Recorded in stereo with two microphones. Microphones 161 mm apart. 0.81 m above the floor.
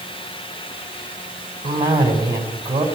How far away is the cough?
About 5 m.